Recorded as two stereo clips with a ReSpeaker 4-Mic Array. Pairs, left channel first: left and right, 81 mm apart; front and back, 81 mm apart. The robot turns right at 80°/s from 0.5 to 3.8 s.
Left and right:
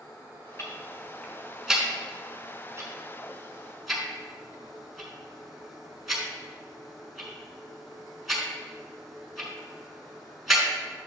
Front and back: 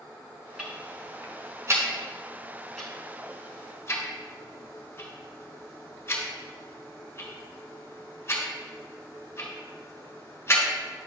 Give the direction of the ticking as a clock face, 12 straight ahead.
9 o'clock.